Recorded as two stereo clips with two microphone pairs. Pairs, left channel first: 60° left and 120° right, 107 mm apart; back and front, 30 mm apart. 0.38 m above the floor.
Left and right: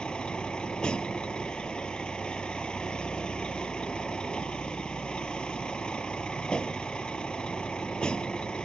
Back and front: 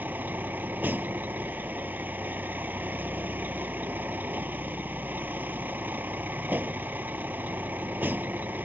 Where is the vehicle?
20° right.